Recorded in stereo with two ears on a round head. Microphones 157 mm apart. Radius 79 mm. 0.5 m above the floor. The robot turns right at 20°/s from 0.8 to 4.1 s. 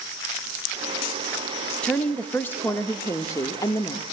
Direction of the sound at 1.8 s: 5° left (ahead or behind).